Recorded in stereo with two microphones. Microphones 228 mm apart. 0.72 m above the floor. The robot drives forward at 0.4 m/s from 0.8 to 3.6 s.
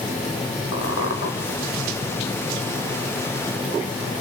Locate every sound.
0.7 s a squeak: 85° left, 4.5 m